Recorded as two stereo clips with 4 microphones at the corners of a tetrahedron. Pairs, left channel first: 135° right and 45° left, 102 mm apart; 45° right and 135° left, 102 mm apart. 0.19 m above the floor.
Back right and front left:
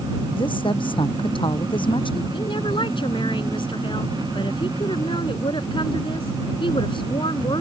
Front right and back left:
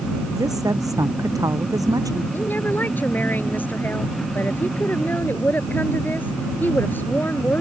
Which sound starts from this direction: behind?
A woman speaking, at 0.4 s.